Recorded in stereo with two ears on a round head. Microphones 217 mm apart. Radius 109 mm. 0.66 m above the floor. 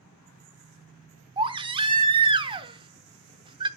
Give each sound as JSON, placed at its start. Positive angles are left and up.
{"t": 1.4, "sound": "a baby crying", "side_deg": -20, "distance_m": 0.9}